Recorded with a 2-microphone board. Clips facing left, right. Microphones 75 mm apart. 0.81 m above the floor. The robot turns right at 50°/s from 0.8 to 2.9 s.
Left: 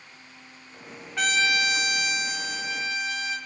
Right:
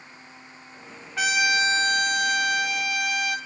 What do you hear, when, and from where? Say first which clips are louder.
1.2 s a trumpet: right 2 dB; 175° right, 1.6 m; by 3.4 s 90° right, 1.6 m